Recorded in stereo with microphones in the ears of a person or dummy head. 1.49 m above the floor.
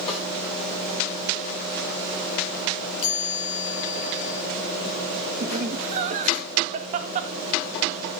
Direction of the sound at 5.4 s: 35° right (ahead or behind).